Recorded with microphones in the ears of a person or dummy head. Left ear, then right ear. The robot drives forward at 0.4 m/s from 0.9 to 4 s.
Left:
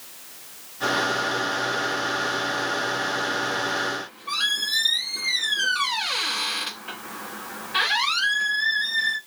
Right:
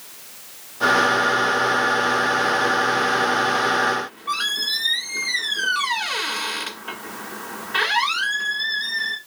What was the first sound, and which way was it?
A squeak, 15° right (ahead or behind).